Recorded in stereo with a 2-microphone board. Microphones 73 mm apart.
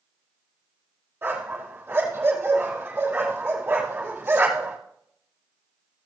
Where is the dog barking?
30° right (ahead or behind), 4 m.